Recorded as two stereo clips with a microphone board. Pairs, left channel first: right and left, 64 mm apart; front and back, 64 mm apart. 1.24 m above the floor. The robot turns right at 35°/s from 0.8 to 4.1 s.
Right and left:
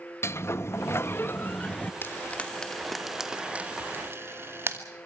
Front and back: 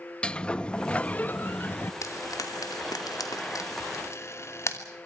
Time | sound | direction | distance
0.2 | a sliding door | 65° right | 0.6 m
2.0 | frying | 35° right | 2.5 m